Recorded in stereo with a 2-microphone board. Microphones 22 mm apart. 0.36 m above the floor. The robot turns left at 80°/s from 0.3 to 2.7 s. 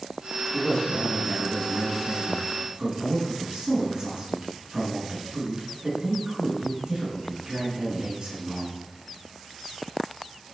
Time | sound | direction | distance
0.5 | a man speaking | 140° left | 4 m